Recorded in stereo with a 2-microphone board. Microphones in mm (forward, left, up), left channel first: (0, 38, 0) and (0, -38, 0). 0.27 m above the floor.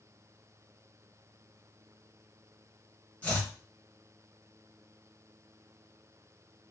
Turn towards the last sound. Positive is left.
turn(degrees=20)  # may be behind; listen again after turning